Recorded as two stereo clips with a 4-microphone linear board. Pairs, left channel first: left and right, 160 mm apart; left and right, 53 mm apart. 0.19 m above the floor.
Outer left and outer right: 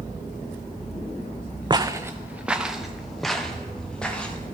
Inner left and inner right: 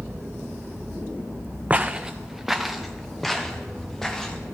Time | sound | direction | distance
1.7 | footsteps | 30° right (ahead or behind) | 0.5 m